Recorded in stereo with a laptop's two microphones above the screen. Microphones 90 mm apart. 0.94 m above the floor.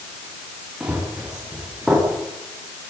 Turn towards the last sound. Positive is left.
turn(degrees=-5)  # may be behind; listen again after turning